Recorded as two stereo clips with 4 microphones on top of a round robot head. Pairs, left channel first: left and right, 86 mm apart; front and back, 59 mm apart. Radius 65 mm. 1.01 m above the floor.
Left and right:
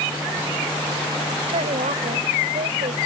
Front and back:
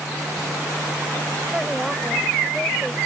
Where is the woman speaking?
100° right; by 3.0 s 85° right.